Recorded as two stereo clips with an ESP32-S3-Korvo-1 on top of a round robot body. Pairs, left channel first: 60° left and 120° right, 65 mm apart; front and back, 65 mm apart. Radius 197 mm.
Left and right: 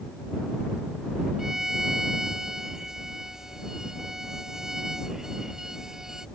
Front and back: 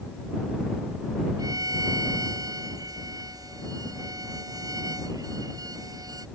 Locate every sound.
1.4 s a violin: 155° left